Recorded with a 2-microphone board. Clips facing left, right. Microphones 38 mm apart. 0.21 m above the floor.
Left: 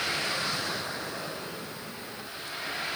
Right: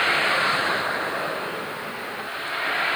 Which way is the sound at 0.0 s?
40° right (ahead or behind).